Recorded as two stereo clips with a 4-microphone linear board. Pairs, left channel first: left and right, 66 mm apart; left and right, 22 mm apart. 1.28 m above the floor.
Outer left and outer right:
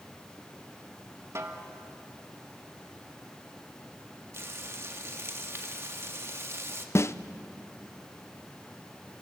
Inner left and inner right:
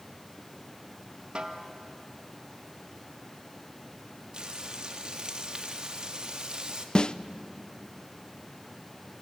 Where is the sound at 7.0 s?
40° left (ahead or behind), 0.6 m.